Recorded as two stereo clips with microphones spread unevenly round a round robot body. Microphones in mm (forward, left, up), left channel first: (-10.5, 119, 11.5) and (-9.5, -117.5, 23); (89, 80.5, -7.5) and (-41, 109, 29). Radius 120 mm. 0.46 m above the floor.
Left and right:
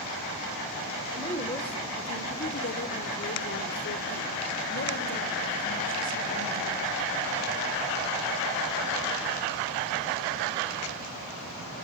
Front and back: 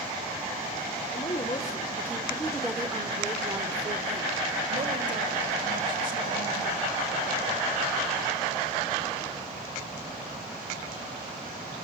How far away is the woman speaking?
About 1.8 m.